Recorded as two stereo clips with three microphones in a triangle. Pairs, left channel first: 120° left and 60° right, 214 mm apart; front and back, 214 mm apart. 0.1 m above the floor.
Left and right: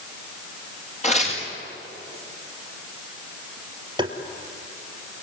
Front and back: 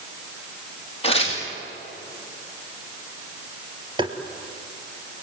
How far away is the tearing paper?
About 7.5 m.